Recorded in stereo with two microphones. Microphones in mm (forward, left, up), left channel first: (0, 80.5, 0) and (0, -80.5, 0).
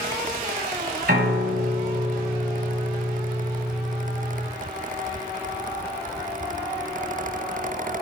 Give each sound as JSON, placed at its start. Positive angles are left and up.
{"t": 1.1, "sound": "a piano", "side_deg": -75, "distance_m": 1.7}